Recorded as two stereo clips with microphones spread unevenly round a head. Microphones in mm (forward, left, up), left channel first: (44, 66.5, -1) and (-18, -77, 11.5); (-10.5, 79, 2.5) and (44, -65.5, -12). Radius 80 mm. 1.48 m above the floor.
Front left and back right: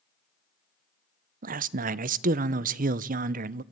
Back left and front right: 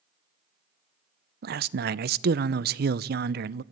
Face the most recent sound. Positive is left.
turn(degrees=-90)